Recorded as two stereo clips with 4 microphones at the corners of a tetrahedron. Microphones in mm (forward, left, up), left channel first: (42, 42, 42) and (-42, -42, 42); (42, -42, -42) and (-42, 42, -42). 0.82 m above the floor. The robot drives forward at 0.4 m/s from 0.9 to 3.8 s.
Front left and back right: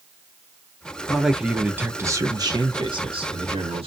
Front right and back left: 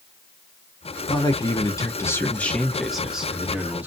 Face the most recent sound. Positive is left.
turn(degrees=-155)